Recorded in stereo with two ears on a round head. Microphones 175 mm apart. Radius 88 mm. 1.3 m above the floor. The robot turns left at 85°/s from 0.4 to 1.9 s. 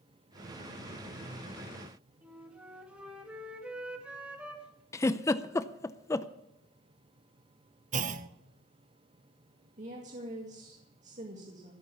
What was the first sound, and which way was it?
A flute, 5° right (ahead or behind).